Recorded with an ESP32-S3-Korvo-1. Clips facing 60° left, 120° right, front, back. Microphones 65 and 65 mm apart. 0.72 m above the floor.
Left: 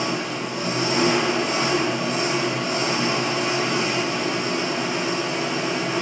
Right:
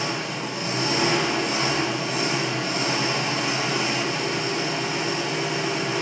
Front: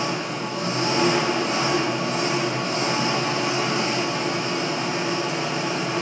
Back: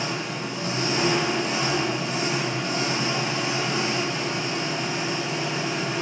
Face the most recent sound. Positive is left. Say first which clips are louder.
# left 2 dB, front 3 dB
turn(degrees=-20)